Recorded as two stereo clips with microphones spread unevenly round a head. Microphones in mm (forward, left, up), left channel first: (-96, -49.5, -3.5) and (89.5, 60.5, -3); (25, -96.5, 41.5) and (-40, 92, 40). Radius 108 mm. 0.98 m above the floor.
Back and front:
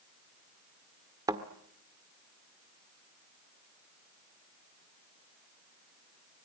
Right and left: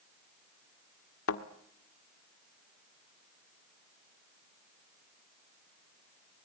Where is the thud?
45° right, 1.5 m.